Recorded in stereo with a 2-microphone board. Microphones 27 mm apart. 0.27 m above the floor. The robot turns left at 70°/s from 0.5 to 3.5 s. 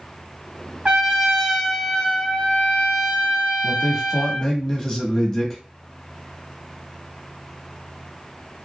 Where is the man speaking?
15° left (ahead or behind), 1.0 m.